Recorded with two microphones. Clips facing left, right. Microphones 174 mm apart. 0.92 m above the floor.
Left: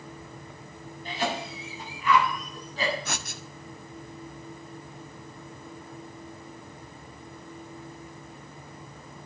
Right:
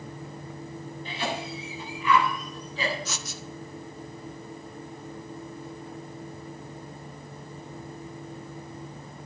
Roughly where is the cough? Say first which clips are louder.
Left 2 dB; left.